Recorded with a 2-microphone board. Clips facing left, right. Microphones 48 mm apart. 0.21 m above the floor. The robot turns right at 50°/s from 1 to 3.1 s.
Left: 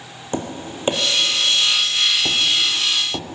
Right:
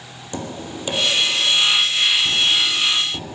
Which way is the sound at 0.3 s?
35° left (ahead or behind).